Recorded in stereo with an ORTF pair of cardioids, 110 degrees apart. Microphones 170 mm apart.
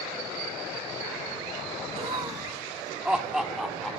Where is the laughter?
40° right, 1.3 m; by 4.0 s straight ahead, 3.5 m.